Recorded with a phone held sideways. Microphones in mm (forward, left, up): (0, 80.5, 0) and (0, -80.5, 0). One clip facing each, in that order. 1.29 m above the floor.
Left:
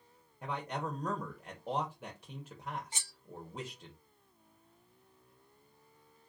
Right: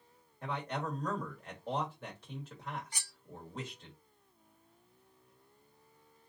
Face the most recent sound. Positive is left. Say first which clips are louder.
# left 2 dB
turn(degrees=25)  # may be behind; listen again after turning